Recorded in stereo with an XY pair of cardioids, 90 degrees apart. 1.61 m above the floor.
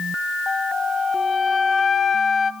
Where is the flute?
45° left, 0.7 m.